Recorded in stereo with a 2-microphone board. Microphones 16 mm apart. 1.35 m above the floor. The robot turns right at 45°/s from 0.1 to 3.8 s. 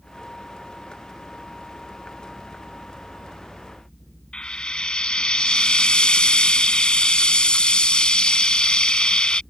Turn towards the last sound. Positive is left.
turn(degrees=60)  # may be behind; listen again after turning